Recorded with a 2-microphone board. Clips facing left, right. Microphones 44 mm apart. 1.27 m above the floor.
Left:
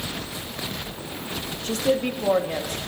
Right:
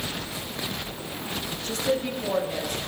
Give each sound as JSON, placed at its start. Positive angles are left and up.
{"t": 1.6, "sound": "a woman speaking", "side_deg": 55, "distance_m": 2.0}